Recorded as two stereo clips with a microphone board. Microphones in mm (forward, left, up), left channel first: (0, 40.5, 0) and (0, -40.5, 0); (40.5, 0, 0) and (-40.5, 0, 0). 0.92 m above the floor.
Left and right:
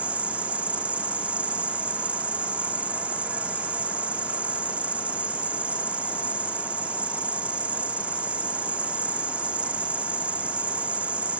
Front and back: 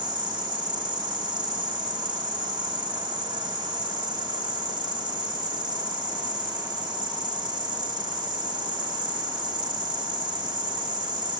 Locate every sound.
0.0 s an insect: 165° right